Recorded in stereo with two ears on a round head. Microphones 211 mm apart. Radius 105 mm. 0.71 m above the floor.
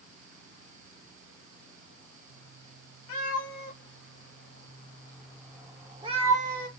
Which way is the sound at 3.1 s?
65° left (ahead or behind).